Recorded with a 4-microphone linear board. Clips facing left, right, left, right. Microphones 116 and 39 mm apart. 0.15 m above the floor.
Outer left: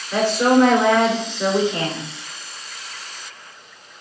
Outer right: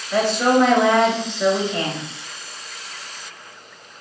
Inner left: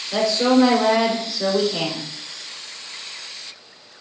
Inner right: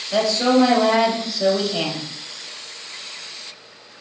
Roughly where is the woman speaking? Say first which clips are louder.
Outer left 1 dB, even; centre.